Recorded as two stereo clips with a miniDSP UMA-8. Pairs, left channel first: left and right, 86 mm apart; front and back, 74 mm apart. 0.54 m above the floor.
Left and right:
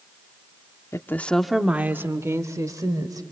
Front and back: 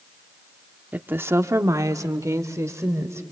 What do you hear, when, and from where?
0.9 s a woman speaking: 125° left, 1.0 m; by 3.2 s 130° right, 2.5 m